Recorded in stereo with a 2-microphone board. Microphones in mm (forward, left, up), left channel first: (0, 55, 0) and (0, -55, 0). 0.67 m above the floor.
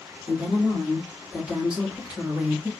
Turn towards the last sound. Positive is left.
turn(degrees=-5)  # may be behind; listen again after turning